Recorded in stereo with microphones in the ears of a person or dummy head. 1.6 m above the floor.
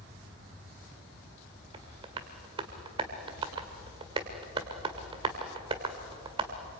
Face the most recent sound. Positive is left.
turn(degrees=-25)  # may be behind; listen again after turning